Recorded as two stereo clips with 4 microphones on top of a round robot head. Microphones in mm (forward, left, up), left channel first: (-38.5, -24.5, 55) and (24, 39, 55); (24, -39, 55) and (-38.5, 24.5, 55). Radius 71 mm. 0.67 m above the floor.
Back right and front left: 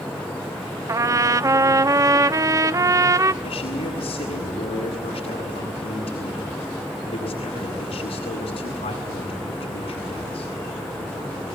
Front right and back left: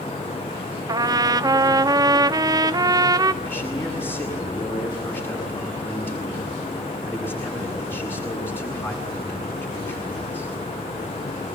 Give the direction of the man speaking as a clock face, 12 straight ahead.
4 o'clock.